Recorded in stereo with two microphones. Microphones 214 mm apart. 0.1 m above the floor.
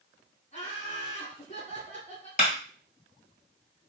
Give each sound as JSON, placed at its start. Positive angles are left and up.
{"t": 0.5, "sound": "laughter", "side_deg": 40, "distance_m": 1.9}
{"t": 2.4, "sound": "a clap", "side_deg": 40, "distance_m": 1.6}